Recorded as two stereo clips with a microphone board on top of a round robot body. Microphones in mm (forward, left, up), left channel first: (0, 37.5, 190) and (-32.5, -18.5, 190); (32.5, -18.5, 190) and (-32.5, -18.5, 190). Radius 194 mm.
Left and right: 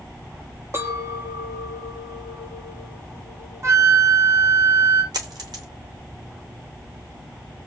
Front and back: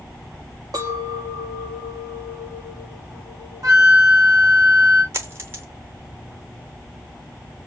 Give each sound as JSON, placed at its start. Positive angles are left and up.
{"t": 0.7, "sound": "a clink", "azimuth_deg": -170, "distance_m": 1.2}
{"t": 3.6, "sound": "a flute", "azimuth_deg": -165, "distance_m": 1.0}
{"t": 5.1, "sound": "a dropped coin", "azimuth_deg": -130, "distance_m": 0.9}